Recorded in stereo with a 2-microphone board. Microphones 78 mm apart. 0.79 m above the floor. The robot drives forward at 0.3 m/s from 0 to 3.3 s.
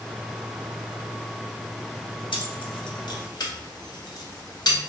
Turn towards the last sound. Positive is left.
turn(degrees=60)  # may be behind; listen again after turning